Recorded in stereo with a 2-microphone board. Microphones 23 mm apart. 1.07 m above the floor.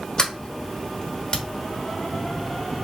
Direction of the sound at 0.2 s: 35° left (ahead or behind).